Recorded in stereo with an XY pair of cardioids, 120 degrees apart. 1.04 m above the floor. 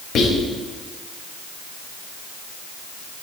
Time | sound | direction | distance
0.1 | whispering | 55° left | 1.4 m